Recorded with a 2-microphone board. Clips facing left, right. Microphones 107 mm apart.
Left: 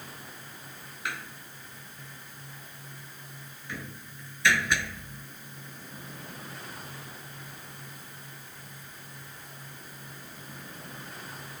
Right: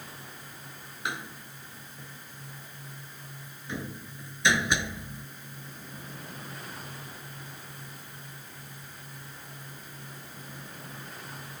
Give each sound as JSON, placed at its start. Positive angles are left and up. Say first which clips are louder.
{"t": 1.1, "sound": "a door slam", "louder": "right 2 dB", "side_deg": -20}